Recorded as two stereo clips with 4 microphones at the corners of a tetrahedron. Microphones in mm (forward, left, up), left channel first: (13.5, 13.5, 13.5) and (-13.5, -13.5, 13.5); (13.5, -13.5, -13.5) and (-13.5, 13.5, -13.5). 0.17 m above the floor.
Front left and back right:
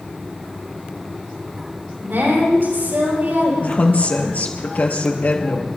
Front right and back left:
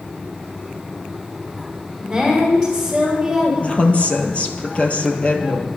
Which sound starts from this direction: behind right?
A woman speaking, at 2.0 s.